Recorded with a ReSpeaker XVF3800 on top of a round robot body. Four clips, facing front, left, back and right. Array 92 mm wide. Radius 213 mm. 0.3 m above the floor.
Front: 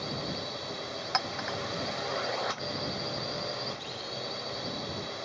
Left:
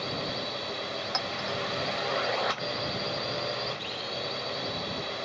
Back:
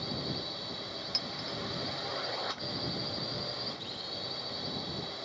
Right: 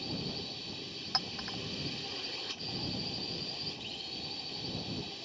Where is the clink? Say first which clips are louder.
Left 5 dB, front 11 dB; 5° left.